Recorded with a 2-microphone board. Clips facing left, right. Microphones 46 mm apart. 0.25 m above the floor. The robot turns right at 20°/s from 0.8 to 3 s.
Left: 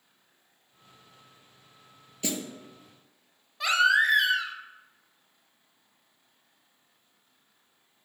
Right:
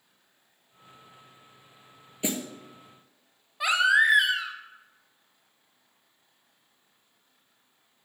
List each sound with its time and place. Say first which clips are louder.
2.2 s a snare drum: right 2 dB; 20° right (ahead or behind), 0.9 m; by 2.4 s 25° right (ahead or behind), 0.9 m
3.6 s a baby crying: right 1 dB; 15° right (ahead or behind), 0.7 m